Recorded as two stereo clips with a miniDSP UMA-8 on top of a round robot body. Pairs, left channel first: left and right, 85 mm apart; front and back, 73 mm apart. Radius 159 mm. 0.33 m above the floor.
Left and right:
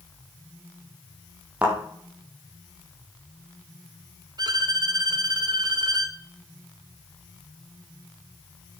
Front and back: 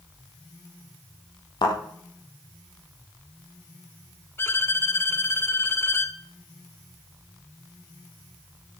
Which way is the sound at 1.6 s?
15° right.